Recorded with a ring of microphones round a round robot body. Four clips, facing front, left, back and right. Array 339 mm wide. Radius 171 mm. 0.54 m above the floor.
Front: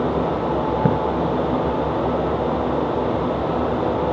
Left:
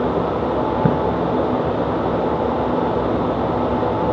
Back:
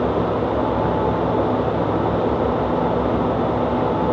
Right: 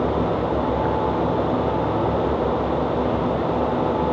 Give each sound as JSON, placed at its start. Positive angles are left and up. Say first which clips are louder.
{"t": 0.8, "sound": "a splash", "louder": "left 4 dB, front 2 dB", "azimuth_deg": 55}